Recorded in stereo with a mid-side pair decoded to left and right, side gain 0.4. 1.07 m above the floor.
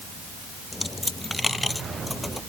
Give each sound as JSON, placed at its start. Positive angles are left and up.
{"t": 0.7, "sound": "a dropped coin", "azimuth_deg": 15}